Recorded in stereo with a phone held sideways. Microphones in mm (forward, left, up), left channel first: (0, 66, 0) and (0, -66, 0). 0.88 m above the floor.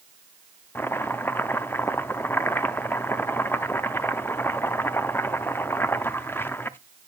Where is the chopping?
15° left (ahead or behind), 0.5 m.